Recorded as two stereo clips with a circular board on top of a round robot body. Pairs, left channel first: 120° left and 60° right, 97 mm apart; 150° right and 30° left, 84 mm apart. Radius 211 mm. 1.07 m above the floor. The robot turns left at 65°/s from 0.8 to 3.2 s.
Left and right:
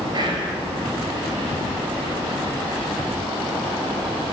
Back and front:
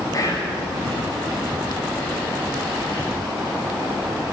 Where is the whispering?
100° right, 8 m.